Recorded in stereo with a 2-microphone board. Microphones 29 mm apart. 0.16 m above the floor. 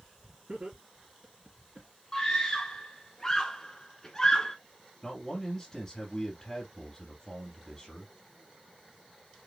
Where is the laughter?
45° right (ahead or behind), 2 m.